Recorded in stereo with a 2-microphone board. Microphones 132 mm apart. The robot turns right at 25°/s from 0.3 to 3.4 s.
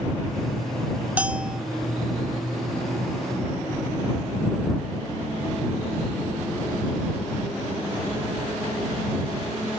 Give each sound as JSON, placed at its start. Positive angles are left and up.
{"t": 1.2, "sound": "a bell", "side_deg": -10}